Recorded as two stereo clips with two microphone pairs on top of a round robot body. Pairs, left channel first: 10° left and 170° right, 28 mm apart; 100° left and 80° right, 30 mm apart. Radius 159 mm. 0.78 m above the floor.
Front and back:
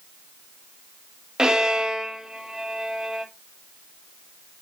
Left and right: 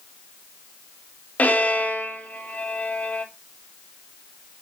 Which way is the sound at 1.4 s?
120° left.